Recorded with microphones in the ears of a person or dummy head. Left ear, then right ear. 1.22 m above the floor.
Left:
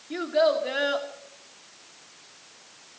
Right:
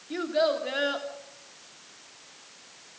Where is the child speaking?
10° left (ahead or behind), 2.5 m.